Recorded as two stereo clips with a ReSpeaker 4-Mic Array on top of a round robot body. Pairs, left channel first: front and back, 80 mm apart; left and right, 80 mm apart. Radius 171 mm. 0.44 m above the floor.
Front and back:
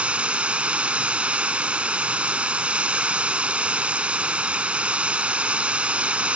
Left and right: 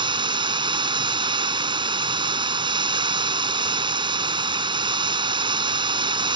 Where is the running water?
105° right.